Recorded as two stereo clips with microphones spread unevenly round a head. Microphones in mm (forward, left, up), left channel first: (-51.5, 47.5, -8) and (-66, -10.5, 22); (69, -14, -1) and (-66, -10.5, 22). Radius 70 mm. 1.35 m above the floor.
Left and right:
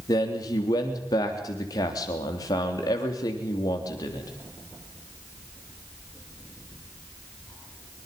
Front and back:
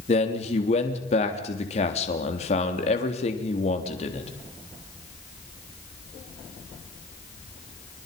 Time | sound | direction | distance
0.1 | a man speaking | 45° left | 3.5 m